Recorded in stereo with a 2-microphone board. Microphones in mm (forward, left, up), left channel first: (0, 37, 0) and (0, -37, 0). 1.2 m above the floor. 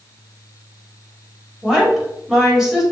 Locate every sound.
1.6 s a woman speaking: 5° right (ahead or behind), 3.5 m